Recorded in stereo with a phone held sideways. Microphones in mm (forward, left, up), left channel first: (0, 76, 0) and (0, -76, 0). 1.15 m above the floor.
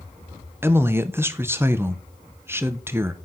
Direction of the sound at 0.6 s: 15° right (ahead or behind).